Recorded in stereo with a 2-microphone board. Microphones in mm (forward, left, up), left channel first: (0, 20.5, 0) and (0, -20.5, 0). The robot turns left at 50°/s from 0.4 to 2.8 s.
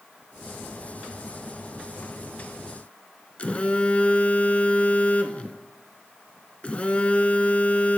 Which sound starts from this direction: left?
A phone buzzing, at 3.4 s.